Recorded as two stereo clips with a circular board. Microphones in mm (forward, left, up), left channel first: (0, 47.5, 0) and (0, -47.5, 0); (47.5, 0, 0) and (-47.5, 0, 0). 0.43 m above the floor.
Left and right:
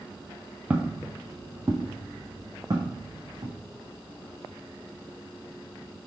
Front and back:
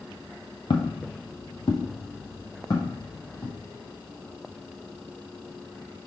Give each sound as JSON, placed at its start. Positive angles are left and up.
{"t": 0.7, "sound": "footsteps", "azimuth_deg": -20, "distance_m": 0.7}